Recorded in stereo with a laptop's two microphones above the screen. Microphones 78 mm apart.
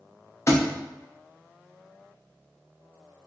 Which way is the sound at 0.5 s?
40° left (ahead or behind).